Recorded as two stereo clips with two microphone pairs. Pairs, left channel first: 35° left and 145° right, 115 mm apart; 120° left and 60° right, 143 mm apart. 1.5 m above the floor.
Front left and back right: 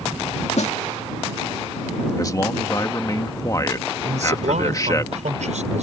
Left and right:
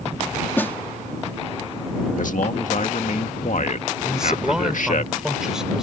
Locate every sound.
0.6 s a snare drum: 45° left
2.2 s a man speaking: 95° left
4.0 s a man speaking: 145° right